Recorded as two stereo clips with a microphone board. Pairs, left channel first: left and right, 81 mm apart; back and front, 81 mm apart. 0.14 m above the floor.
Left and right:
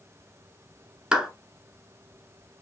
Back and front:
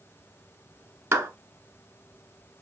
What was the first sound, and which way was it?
A clap, 20° right.